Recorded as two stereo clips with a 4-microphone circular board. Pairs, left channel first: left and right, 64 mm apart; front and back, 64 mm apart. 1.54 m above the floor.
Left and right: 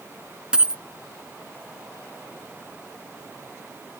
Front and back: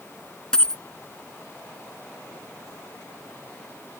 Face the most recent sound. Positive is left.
turn(degrees=-55)